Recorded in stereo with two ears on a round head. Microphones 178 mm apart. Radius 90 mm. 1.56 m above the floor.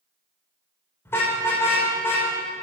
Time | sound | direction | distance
1.1 | a car horn | 15° left (ahead or behind) | 3.5 m